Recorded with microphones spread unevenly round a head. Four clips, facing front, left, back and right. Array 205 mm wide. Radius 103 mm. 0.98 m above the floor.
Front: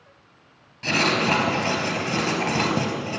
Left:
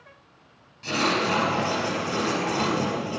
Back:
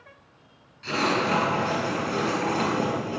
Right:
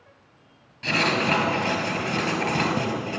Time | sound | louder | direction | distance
0.8 | writing | right 1 dB, front 2 dB | 35° right | 4 m